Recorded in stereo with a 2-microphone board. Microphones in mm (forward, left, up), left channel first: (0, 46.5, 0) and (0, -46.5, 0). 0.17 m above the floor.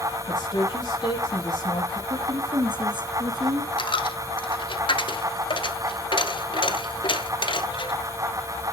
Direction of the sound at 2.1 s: 55° right (ahead or behind).